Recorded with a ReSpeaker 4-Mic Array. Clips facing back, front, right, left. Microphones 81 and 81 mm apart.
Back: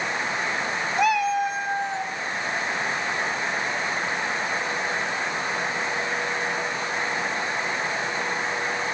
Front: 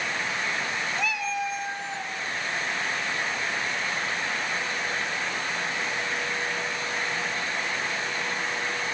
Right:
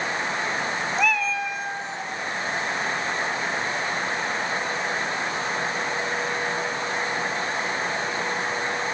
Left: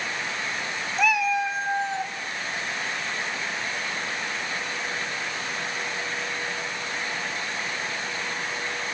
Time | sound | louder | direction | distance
1.0 | a cat meowing | back 12 dB, left 3 dB | straight behind | 0.7 m